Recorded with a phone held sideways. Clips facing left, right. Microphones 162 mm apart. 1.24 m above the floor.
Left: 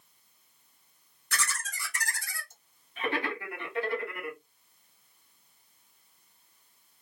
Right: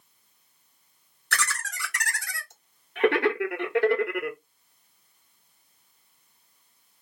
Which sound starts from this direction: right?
Laughter, at 1.3 s.